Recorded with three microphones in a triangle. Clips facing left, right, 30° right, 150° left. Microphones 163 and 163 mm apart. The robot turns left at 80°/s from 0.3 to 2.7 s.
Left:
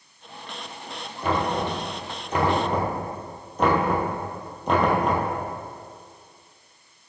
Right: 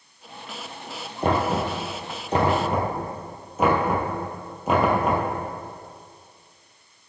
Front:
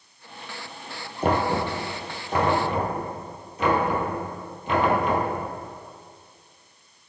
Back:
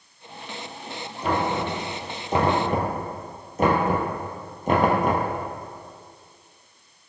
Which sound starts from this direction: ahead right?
Knocking, at 1.2 s.